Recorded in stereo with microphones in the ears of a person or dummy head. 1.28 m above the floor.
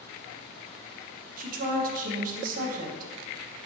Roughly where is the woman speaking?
Right.